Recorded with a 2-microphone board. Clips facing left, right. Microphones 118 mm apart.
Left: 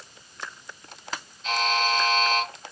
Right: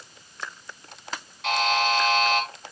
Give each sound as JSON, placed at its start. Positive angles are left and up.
{"t": 1.4, "sound": "a buzzer", "side_deg": -70, "distance_m": 6.5}